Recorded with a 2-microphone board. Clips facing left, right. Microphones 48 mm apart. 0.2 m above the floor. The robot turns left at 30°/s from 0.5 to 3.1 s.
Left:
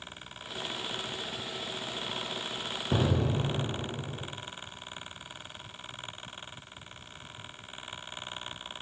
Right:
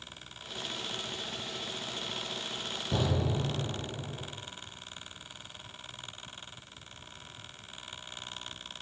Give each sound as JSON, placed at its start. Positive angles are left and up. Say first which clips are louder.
{"t": 2.9, "sound": "an explosion", "louder": "left 3 dB", "side_deg": 40, "distance_m": 2.0}